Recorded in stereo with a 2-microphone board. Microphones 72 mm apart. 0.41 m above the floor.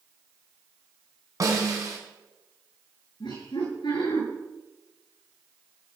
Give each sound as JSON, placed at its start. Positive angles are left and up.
{"t": 1.4, "sound": "a snare drum", "side_deg": -50, "distance_m": 4.5}
{"t": 3.2, "sound": "laughter", "side_deg": 80, "distance_m": 8.0}